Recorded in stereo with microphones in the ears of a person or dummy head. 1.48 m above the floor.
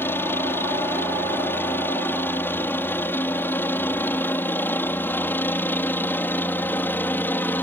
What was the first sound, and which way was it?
A helicopter, 15° left (ahead or behind).